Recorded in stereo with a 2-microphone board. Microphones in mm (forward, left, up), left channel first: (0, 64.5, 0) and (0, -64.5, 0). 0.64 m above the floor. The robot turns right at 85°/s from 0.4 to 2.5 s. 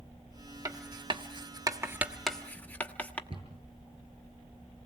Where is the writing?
25° right (ahead or behind), 1.1 m; by 3.2 s 10° left (ahead or behind), 1.1 m.